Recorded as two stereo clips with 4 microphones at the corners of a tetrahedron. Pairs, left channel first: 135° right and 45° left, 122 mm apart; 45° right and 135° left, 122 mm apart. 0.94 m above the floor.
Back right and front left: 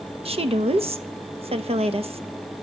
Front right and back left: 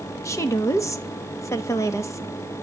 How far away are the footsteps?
I don't hear footsteps.